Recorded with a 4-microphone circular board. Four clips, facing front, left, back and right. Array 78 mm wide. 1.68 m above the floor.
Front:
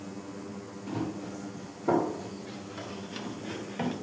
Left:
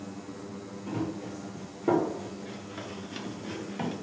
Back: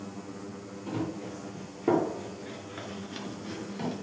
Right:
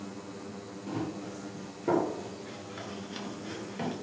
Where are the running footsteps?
175° right, 3.5 m; by 4.0 s 10° left, 1.9 m.